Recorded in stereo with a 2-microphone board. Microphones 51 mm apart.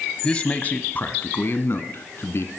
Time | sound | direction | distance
0.2 | a man speaking | 20° left (ahead or behind) | 1.2 m